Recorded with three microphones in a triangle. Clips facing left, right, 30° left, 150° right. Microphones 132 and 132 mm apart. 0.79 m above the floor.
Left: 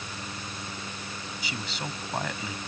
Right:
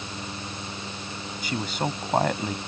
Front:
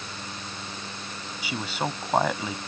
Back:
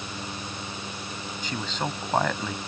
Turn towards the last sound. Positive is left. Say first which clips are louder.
# right 9 dB, front 1 dB
turn(degrees=-50)